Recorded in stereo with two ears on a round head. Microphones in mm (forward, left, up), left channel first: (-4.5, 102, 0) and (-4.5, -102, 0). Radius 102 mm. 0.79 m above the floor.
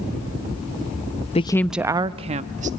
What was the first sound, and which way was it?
A woman speaking, 25° left (ahead or behind).